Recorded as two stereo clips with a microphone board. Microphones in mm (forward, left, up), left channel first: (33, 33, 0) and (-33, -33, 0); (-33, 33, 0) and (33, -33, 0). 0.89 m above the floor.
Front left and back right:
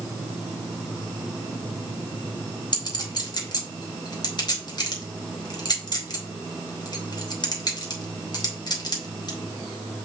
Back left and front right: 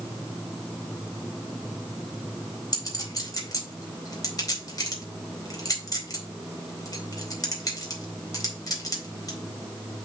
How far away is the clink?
About 2.5 m.